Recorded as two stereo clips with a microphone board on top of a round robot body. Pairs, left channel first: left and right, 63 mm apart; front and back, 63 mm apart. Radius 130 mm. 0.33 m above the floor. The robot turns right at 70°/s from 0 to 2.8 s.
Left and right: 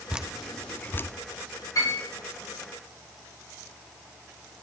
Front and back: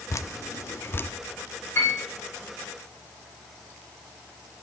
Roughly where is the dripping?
Ahead.